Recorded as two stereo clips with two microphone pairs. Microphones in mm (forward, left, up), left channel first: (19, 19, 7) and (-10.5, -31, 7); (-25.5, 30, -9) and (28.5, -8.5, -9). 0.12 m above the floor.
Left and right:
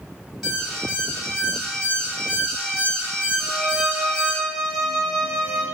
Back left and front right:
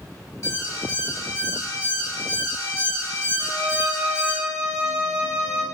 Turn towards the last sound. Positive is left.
turn(degrees=-25)